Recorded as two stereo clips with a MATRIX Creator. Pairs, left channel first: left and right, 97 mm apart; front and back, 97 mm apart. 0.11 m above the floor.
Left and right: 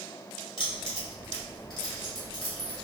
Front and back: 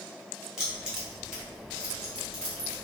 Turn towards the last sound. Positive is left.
turn(degrees=100)